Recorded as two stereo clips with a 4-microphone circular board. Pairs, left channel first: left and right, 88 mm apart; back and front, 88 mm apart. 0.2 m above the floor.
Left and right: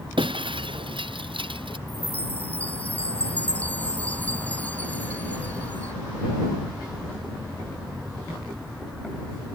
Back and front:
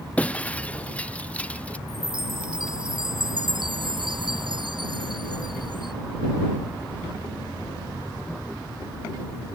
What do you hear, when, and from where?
0.2 s breaking glass: 105° right
1.9 s a chime: 20° left